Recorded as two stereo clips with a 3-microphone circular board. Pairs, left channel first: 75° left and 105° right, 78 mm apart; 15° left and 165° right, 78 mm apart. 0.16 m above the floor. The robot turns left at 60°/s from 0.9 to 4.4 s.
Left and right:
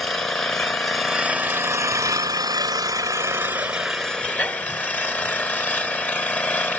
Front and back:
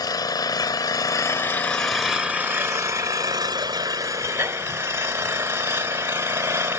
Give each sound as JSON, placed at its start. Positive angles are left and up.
{"t": 0.0, "sound": "an engine running", "azimuth_deg": -10, "distance_m": 0.9}